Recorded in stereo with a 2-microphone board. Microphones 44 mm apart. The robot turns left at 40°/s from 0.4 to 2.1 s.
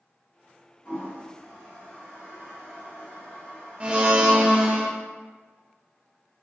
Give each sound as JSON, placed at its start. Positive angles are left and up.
{"t": 0.8, "sound": "a toilet flushing", "side_deg": 30, "distance_m": 1.4}
{"t": 3.8, "sound": "a blender", "side_deg": -30, "distance_m": 0.6}